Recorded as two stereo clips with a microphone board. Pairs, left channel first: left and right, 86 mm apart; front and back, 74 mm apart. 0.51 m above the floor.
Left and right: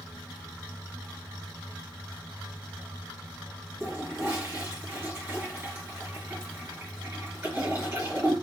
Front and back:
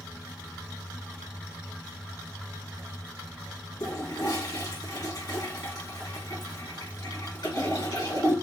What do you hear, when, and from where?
3.8 s a toilet flushing: 25° right, 2 m